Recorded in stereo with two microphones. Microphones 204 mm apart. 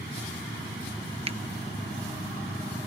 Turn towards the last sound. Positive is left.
turn(degrees=-30)  # may be behind; listen again after turning